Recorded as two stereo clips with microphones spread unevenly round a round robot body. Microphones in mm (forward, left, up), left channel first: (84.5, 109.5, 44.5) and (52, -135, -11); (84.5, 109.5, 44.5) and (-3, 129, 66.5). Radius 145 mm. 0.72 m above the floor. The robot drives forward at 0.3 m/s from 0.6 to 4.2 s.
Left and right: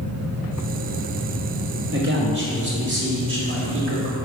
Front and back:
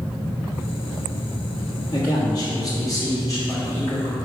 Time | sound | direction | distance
1.9 | a man speaking | 80° right | 2.0 m